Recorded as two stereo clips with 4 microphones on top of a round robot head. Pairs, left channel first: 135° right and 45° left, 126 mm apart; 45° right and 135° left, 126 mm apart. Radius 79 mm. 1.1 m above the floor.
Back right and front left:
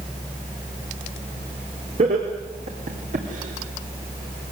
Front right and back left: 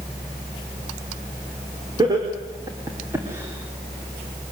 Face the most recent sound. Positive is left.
turn(degrees=55)